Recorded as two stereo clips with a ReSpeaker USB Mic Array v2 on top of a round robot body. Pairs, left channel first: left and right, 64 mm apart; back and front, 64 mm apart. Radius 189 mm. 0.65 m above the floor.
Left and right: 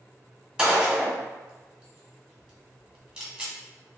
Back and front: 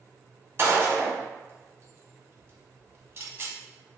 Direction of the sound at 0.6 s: 20° right.